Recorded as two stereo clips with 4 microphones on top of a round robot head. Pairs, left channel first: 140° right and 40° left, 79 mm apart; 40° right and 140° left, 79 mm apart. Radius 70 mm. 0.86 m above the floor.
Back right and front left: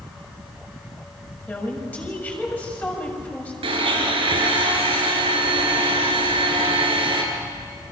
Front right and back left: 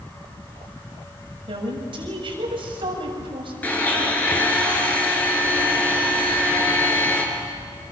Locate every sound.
1.5 s a woman speaking: 150° left, 6.5 m
3.6 s a blender: 30° left, 5.5 m